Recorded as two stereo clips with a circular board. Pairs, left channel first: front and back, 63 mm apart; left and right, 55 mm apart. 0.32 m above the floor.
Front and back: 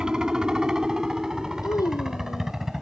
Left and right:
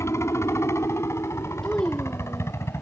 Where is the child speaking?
15° left.